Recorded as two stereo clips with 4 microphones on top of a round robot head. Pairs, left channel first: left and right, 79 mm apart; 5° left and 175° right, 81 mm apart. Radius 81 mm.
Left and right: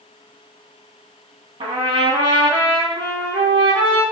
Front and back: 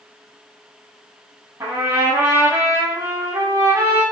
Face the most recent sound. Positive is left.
turn(degrees=-110)